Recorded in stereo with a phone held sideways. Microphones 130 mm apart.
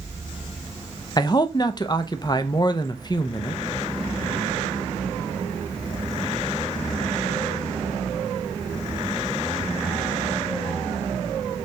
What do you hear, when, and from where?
1.2 s a man speaking: 35° left (ahead or behind), 0.5 m